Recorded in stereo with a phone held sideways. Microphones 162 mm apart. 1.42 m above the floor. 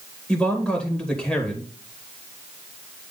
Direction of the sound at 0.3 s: Centre (ahead or behind).